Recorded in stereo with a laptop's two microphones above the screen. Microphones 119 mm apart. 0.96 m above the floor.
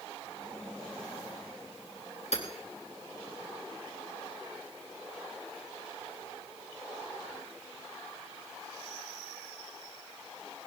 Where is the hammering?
80° left, 4 m.